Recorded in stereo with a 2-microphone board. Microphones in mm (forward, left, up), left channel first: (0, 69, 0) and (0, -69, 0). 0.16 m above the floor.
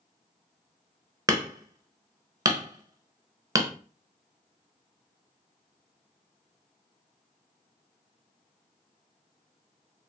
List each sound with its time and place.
1.3 s hammering: 25° right (ahead or behind), 0.8 m